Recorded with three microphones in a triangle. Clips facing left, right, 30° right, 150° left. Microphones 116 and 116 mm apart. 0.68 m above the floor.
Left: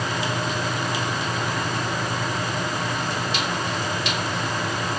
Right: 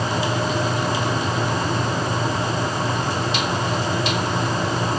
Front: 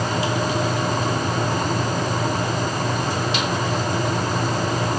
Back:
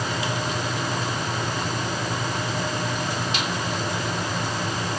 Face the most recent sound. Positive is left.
No sound to turn to.